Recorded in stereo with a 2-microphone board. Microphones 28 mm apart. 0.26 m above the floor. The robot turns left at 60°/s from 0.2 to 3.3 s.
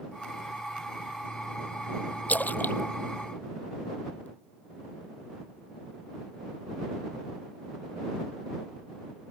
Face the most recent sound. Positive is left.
turn(degrees=55)  # may be behind; listen again after turning